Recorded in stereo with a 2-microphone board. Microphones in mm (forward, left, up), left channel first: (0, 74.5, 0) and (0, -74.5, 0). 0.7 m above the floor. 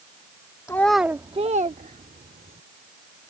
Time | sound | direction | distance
0.7 | a child speaking | 20° left (ahead or behind) | ?